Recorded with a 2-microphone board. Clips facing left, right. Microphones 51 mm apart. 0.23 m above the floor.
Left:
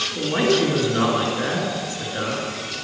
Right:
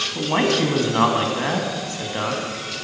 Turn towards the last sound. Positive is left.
turn(degrees=-45)  # may be behind; listen again after turning